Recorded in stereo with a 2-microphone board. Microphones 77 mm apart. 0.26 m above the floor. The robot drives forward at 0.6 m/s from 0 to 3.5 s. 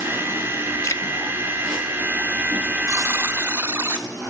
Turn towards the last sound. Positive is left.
turn(degrees=-30)  # may be behind; listen again after turning